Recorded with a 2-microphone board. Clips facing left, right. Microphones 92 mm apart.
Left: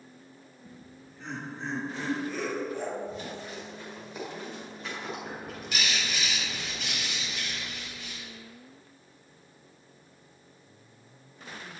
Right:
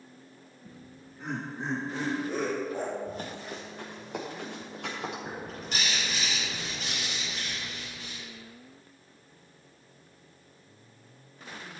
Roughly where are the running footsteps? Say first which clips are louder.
Even; right.